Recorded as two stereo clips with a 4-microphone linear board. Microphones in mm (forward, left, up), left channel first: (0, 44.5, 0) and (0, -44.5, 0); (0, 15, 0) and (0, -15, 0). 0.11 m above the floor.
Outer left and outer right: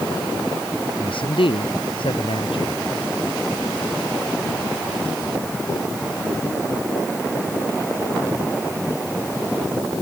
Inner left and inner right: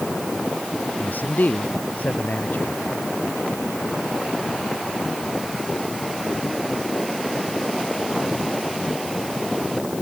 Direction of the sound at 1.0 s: 70° left (ahead or behind).